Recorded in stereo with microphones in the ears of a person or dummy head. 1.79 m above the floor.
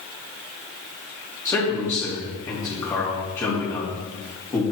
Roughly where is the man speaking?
Centre.